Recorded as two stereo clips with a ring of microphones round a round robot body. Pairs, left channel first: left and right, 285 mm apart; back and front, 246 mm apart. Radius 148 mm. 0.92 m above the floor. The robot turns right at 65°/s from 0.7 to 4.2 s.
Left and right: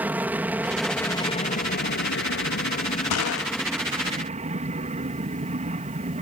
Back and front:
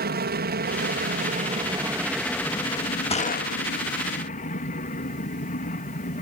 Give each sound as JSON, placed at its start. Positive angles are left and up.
{"t": 0.0, "sound": "an aircraft", "azimuth_deg": -10}
{"t": 3.1, "sound": "a gunshot", "azimuth_deg": 115}